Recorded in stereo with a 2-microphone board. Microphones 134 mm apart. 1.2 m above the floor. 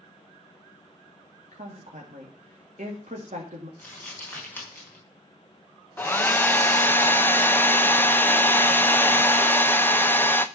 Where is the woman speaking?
70° right (ahead or behind), 2 m.